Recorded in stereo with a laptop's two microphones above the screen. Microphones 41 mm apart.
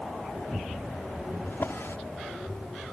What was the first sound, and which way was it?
A drawer, 85° left.